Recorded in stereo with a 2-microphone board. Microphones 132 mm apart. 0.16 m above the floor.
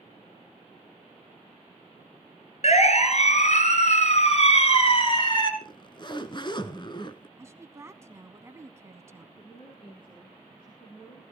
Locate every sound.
2.6 s a siren: 55° left (ahead or behind), 2.5 m; by 5.5 s 35° left (ahead or behind), 2 m
5.6 s a zipper: 35° left (ahead or behind), 1.1 m
7.4 s a woman speaking: 20° right (ahead or behind), 1.1 m
9.4 s a woman speaking: 40° left (ahead or behind), 3.5 m